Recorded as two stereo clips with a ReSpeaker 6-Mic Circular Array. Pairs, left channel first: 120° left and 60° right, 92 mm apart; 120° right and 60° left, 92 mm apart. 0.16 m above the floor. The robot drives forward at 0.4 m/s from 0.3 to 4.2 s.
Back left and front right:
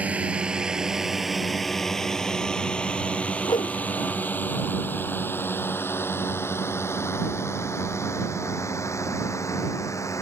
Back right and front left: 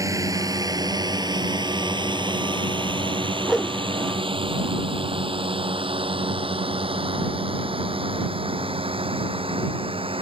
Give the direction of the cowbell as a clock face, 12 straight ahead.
No cowbell in this recording.